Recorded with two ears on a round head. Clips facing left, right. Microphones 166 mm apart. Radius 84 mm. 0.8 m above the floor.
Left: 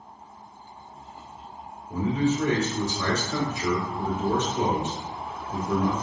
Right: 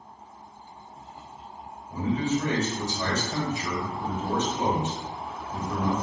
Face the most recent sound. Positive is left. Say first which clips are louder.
# left 2 dB
turn(degrees=55)  # may be behind; listen again after turning